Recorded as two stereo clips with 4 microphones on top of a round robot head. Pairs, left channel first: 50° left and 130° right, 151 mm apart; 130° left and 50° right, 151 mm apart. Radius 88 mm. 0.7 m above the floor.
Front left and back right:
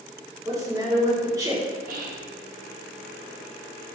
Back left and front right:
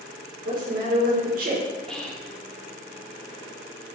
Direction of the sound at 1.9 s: 145° right.